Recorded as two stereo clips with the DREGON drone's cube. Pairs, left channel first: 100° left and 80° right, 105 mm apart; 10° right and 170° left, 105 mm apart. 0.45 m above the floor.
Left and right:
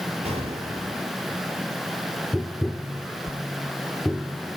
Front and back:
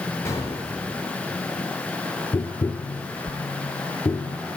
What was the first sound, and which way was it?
An explosion, 75° right.